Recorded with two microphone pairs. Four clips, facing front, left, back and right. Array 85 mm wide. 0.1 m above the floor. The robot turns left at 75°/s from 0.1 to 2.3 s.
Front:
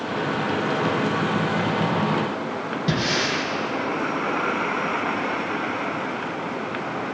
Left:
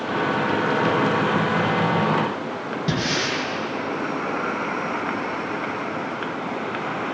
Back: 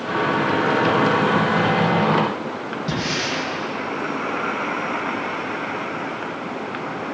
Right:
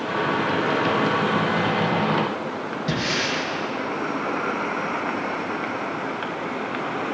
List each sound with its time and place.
2.9 s breathing: 45° left, 2.5 m